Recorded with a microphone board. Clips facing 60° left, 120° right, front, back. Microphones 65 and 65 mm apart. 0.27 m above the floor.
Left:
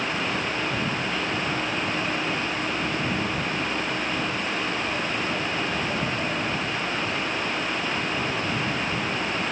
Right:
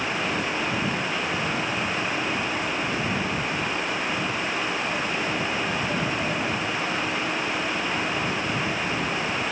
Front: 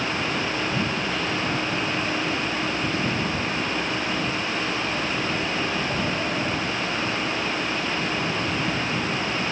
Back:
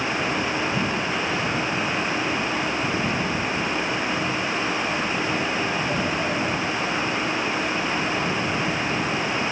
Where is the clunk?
I don't hear a clunk.